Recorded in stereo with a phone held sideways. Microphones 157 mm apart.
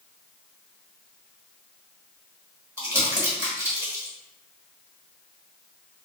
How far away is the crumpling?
About 1.2 m.